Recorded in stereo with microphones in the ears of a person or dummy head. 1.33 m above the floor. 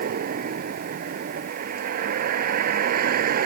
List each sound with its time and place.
0.0 s a vehicle: 55° right (ahead or behind)